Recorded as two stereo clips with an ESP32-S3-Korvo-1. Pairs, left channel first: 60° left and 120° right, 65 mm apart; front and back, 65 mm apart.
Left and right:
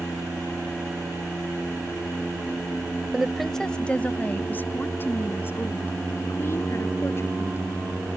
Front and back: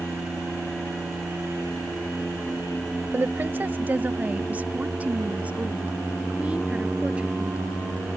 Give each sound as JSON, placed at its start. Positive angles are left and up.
{"t": 3.1, "sound": "a woman speaking", "azimuth_deg": 165}